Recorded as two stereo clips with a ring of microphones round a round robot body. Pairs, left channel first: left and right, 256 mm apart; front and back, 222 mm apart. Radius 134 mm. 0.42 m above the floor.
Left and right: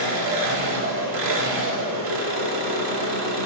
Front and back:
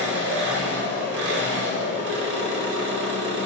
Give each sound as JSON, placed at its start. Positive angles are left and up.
{"t": 0.0, "sound": "an engine running", "azimuth_deg": -135, "distance_m": 0.7}